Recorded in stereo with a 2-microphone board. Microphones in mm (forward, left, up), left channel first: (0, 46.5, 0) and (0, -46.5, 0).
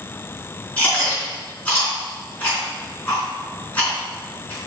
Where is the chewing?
20° left (ahead or behind), 4 m.